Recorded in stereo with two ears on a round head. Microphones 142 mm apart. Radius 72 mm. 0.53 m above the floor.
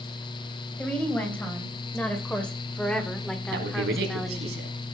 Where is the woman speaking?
10° left (ahead or behind), 3.5 m; by 4.5 s centre (ahead or behind), 1.3 m.